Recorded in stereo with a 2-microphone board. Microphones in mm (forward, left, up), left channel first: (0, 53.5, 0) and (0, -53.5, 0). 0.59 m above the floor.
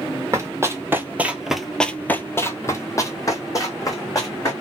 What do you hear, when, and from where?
0.3 s running footsteps: 25° right (ahead or behind), 1.0 m; by 4.5 s 35° left (ahead or behind), 1.9 m